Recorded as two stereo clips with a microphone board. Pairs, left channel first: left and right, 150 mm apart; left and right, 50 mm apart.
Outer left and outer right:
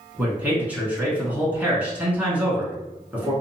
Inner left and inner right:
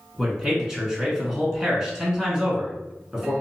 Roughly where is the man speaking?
Centre.